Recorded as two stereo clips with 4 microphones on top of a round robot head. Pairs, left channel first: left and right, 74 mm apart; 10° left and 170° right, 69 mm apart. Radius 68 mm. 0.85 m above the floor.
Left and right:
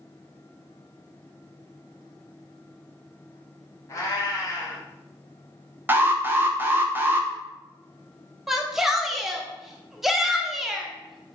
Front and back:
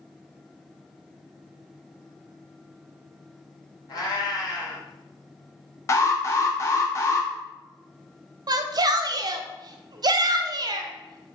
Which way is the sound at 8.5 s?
175° right.